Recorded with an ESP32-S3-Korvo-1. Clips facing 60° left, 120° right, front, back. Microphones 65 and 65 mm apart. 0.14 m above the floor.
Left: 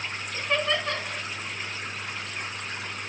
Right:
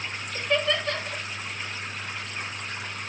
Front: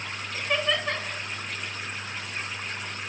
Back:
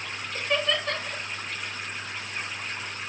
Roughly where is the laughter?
Left.